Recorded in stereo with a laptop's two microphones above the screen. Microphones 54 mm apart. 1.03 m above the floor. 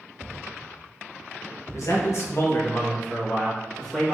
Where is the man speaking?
65° left (ahead or behind), 1.0 m; by 4.1 s 10° left (ahead or behind), 1.3 m.